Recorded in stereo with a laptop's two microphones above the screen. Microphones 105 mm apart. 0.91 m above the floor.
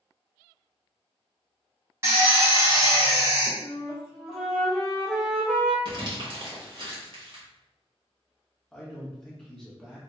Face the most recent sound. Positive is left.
turn(degrees=5)  # may be behind; listen again after turning